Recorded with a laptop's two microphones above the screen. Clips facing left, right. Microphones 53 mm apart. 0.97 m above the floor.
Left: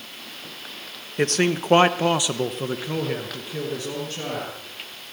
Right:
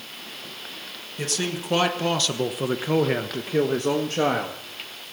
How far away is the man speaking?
About 1.3 m.